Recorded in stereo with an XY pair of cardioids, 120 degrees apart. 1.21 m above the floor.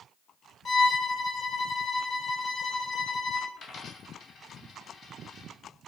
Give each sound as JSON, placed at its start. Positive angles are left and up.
{"t": 0.7, "sound": "a violin", "azimuth_deg": 35, "distance_m": 2.0}
{"t": 3.6, "sound": "a dropped coin", "azimuth_deg": 55, "distance_m": 2.5}